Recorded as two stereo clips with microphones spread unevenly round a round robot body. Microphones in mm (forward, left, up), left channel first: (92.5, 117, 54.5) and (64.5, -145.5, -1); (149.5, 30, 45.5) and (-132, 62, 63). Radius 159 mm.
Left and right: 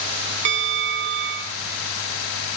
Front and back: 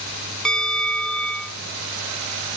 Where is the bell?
90° right, 0.8 m.